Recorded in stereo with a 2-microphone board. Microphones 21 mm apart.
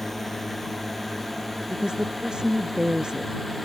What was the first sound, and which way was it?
A drone, 10° left (ahead or behind).